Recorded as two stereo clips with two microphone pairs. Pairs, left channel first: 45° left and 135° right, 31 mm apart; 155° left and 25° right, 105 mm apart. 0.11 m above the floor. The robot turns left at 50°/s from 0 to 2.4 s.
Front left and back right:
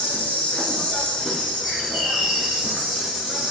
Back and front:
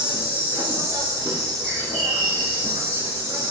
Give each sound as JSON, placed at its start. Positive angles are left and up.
{"t": 0.0, "sound": "an insect", "azimuth_deg": 50, "distance_m": 0.8}
{"t": 1.6, "sound": "a bird", "azimuth_deg": -125, "distance_m": 1.1}